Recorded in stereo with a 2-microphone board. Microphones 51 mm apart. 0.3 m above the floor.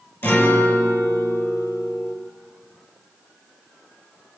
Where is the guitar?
45° left (ahead or behind), 6 m.